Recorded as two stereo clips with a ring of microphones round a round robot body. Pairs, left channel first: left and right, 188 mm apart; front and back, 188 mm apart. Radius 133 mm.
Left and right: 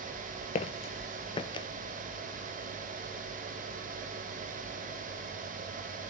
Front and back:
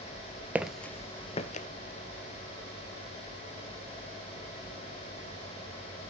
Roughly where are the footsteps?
Left.